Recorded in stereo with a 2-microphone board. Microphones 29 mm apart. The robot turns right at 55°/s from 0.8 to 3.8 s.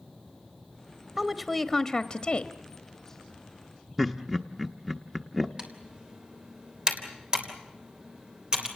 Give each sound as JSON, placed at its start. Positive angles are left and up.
{"t": 1.2, "sound": "a woman speaking", "azimuth_deg": -30, "distance_m": 1.0}
{"t": 4.0, "sound": "laughter", "side_deg": -15, "distance_m": 0.8}
{"t": 5.6, "sound": "typing on a keyboard", "side_deg": -30, "distance_m": 3.0}